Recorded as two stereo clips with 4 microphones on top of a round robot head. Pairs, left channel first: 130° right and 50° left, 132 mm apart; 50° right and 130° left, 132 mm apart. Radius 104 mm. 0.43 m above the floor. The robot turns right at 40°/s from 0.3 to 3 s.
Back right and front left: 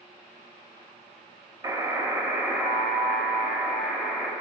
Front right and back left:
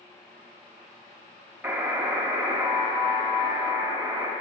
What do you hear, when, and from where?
1.6 s a buzzer: 60° left, 1.1 m; by 4.3 s 115° left, 1.1 m